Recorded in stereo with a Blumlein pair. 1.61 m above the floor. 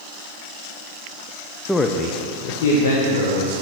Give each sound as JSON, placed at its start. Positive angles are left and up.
{"t": 1.7, "sound": "a man speaking", "azimuth_deg": 5, "distance_m": 0.9}